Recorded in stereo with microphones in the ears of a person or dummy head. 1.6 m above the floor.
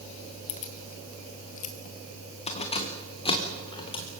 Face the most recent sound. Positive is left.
turn(degrees=25)  # may be behind; listen again after turning